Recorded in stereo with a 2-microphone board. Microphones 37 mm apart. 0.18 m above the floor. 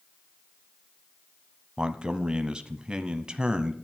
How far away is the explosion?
I don't hear an explosion.